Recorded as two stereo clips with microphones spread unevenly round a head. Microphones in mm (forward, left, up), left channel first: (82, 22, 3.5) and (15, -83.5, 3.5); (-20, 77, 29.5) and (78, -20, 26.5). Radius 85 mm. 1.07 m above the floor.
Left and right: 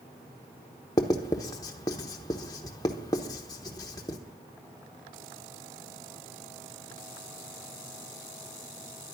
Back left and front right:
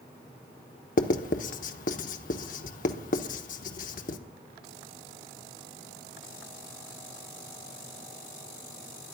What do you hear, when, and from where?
1.0 s writing: 125° left, 1.0 m